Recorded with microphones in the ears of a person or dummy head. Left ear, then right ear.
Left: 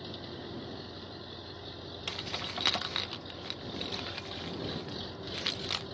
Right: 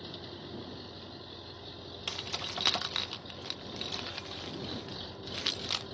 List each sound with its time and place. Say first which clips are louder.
0.0 s an engine running: left 1 dB; centre (ahead or behind)
2.1 s keys jangling: even; 5° right (ahead or behind)